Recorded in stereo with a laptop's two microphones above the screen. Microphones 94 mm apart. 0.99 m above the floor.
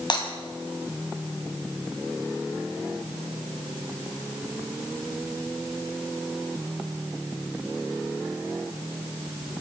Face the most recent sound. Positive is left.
turn(degrees=55)  # may be behind; listen again after turning